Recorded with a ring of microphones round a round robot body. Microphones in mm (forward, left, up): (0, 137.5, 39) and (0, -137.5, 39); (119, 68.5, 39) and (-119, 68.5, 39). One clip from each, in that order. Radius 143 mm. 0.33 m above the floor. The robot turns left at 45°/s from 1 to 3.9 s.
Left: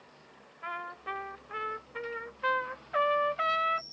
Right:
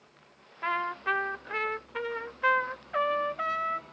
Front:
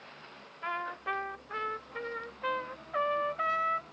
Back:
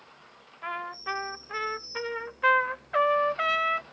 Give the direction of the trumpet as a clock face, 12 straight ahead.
3 o'clock.